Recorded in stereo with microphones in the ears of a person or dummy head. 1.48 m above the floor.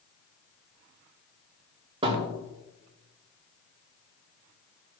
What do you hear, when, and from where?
2.0 s a thud: 30° right (ahead or behind), 1.7 m